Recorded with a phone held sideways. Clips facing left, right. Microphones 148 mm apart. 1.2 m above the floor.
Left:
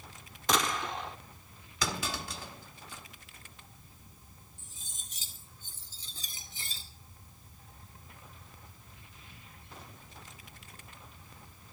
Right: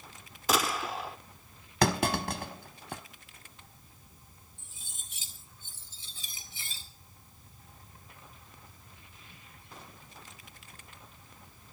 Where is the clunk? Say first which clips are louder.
Right 9 dB; 60° right (ahead or behind), 1.1 m.